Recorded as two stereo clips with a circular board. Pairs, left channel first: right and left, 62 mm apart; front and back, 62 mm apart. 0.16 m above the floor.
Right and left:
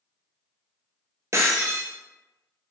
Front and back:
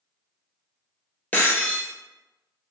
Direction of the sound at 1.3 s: 60° left.